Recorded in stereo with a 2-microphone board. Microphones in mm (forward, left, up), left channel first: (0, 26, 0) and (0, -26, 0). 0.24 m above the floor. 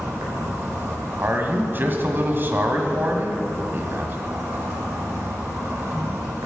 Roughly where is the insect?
Right.